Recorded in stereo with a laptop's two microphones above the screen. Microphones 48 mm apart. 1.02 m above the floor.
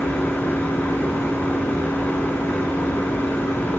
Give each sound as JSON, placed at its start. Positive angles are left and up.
{"t": 0.0, "sound": "a machine running", "side_deg": 50, "distance_m": 1.3}